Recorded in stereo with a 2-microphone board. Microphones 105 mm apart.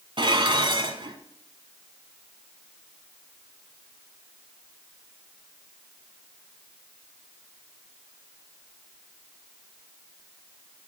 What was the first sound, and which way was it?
Dishes clattering, 50° right (ahead or behind).